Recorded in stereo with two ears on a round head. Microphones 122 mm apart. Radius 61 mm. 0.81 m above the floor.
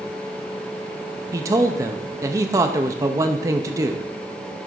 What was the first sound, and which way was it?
A man speaking, 25° right (ahead or behind).